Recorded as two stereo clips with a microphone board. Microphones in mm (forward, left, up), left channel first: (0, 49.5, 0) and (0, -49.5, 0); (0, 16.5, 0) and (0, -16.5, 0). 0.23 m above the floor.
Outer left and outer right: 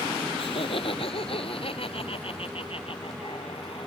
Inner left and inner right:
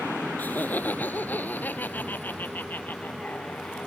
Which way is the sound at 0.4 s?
65° left (ahead or behind).